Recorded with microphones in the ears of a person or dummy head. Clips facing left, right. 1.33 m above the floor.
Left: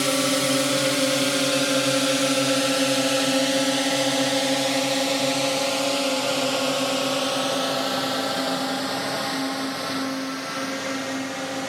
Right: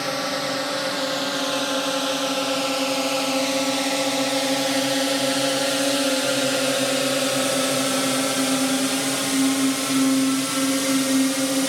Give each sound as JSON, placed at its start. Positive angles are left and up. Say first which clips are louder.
{"t": 0.0, "sound": "a drone", "louder": "left 4 dB", "side_deg": 40}